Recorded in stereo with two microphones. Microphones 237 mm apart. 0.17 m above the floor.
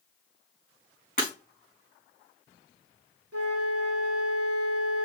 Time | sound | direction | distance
1.2 | breaking glass | 35° left (ahead or behind) | 4.5 m
3.3 | a flute | 80° right | 1.7 m